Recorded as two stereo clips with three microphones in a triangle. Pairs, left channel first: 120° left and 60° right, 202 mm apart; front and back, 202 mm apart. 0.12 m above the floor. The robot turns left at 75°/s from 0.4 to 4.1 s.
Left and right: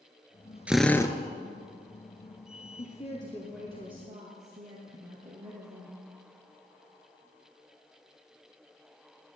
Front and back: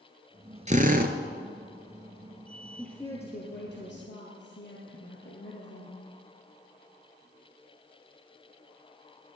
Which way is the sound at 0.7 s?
140° right.